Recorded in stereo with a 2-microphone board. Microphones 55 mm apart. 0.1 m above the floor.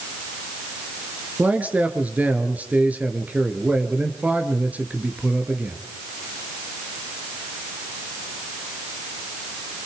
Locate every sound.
1.4 s a man speaking: 30° right (ahead or behind), 1.8 m